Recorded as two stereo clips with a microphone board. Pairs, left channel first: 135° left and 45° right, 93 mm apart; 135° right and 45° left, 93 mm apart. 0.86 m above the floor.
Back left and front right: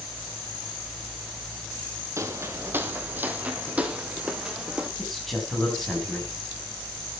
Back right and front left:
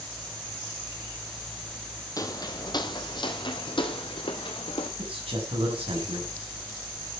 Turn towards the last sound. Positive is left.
turn(degrees=45)